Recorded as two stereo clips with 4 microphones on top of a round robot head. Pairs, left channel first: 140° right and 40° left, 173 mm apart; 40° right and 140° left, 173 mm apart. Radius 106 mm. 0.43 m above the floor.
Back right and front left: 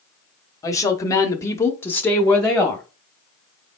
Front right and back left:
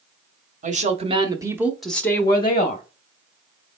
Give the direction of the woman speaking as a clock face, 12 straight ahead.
7 o'clock.